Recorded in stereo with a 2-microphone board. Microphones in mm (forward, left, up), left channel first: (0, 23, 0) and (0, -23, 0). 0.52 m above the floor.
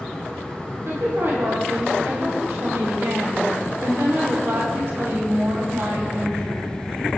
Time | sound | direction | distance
0.8 | a woman speaking | 70° right (ahead or behind) | 3 m